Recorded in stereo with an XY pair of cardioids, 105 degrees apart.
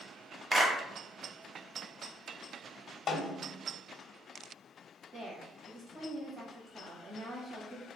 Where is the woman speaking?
45° right, 1.8 m.